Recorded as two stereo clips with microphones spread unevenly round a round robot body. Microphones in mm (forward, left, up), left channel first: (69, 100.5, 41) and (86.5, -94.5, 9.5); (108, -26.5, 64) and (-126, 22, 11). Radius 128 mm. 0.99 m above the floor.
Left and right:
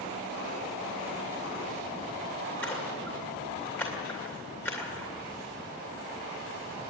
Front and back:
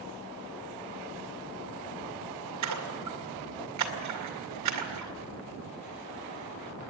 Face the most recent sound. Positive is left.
turn(degrees=180)